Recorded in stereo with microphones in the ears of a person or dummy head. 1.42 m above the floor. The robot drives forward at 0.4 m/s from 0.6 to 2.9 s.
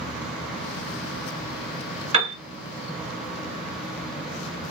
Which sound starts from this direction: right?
A piano, at 2.1 s.